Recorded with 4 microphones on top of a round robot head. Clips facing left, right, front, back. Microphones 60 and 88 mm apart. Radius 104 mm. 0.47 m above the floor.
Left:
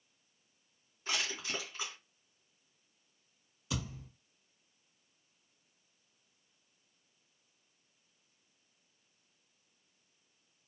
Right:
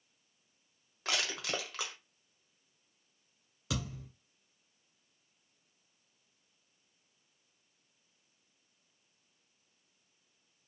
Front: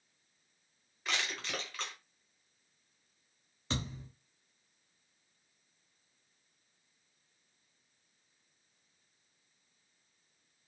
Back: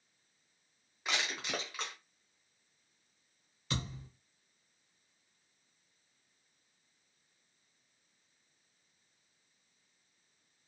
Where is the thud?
65° right, 1.8 m.